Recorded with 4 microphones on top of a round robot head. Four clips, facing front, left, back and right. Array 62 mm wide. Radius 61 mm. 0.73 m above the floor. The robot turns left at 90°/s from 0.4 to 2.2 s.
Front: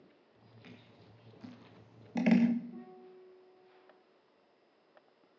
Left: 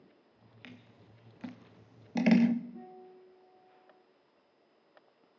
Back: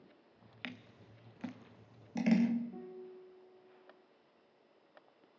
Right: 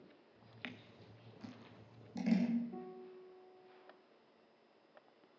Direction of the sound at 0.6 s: 155° right.